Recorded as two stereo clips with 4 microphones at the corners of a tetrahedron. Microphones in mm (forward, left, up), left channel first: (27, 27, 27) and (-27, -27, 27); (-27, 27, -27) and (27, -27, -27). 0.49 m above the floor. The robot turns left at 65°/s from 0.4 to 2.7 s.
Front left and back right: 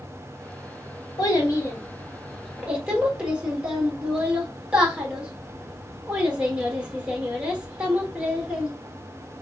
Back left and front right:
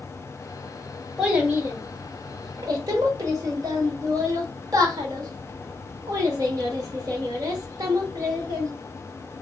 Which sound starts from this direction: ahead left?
A child speaking, at 1.2 s.